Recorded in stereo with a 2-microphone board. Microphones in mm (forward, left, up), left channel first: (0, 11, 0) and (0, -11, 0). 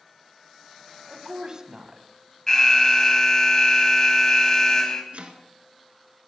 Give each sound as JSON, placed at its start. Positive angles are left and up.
{"t": 1.1, "sound": "a woman speaking", "side_deg": -30, "distance_m": 1.2}
{"t": 2.5, "sound": "an alarm", "side_deg": 25, "distance_m": 1.0}
{"t": 5.1, "sound": "chopping", "side_deg": -65, "distance_m": 1.0}